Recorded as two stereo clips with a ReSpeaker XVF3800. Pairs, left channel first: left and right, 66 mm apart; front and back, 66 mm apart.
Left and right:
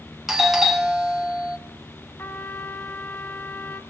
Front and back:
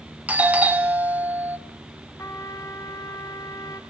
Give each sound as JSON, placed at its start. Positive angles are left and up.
{"t": 0.3, "sound": "a doorbell", "azimuth_deg": -170, "distance_m": 1.1}
{"t": 2.2, "sound": "a trumpet", "azimuth_deg": 35, "distance_m": 1.7}